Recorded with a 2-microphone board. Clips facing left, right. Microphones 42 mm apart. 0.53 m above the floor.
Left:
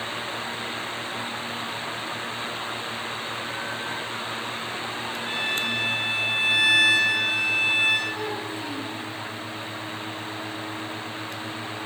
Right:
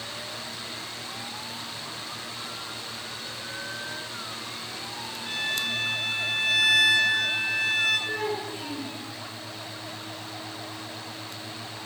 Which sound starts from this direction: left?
A violin, at 5.2 s.